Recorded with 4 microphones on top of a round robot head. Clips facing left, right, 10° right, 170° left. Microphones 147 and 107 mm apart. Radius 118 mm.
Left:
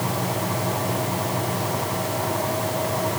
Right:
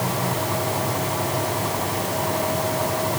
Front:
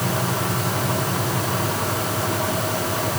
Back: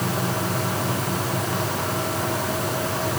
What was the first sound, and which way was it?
Only background noise.